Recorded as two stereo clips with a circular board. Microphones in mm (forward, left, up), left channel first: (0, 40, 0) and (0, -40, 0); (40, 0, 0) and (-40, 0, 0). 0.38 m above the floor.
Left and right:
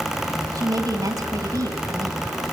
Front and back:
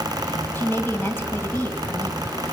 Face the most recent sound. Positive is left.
turn(degrees=-60)